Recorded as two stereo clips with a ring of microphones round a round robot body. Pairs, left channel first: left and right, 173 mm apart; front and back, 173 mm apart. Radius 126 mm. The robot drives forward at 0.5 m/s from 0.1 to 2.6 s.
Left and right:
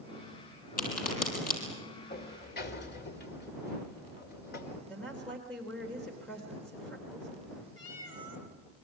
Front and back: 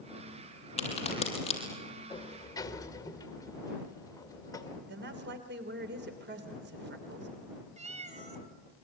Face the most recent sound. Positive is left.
turn(degrees=130)